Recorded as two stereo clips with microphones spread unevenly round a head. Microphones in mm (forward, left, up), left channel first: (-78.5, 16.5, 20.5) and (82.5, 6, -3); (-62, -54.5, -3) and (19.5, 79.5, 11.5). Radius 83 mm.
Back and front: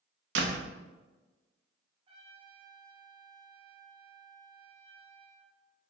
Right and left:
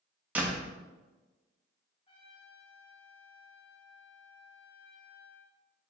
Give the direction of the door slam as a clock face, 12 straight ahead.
1 o'clock.